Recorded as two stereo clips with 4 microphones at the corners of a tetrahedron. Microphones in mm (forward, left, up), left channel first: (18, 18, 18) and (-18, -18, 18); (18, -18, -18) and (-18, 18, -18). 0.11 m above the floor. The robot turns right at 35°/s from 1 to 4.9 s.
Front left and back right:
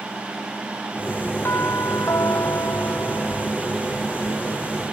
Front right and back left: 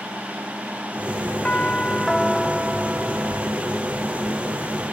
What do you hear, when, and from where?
1.4 s a doorbell: 15° left; by 3.6 s 90° left